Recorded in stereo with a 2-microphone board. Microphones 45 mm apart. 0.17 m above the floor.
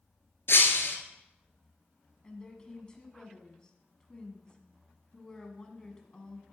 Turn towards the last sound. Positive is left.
turn(degrees=20)  # may be behind; listen again after turning